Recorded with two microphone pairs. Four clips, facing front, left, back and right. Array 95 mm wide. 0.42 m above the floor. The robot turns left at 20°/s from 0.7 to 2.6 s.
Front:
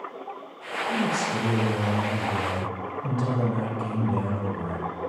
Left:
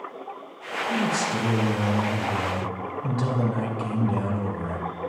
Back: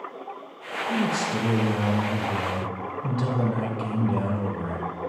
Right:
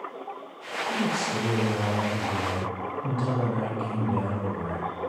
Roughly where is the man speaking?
Behind.